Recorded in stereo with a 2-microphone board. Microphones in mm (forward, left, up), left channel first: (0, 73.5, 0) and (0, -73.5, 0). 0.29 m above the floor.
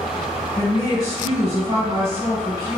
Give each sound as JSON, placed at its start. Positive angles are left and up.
{"t": 0.6, "sound": "a woman speaking", "side_deg": -20, "distance_m": 1.6}